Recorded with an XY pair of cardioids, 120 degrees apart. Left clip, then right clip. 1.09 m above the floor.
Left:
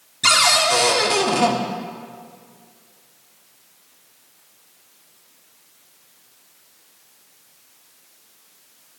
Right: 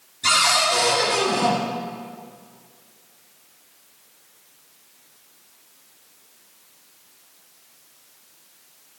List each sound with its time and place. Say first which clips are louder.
0.2 s a cupboard door: left 3 dB; 50° left, 1.2 m